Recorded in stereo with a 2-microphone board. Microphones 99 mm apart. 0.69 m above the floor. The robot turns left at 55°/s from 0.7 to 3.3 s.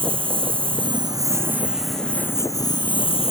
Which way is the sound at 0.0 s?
115° right.